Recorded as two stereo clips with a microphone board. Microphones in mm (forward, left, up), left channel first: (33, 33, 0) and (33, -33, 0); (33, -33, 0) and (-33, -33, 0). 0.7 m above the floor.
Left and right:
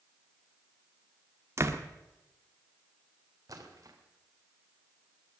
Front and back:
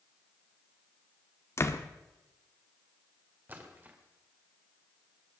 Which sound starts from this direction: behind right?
A splash, at 3.5 s.